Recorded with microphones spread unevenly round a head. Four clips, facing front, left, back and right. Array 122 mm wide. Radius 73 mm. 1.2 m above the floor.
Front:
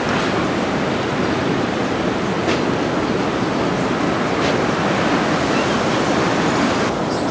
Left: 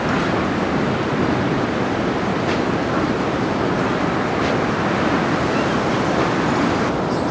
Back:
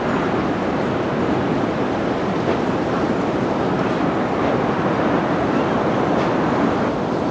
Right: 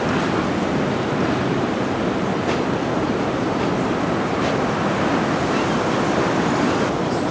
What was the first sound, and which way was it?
Only background noise.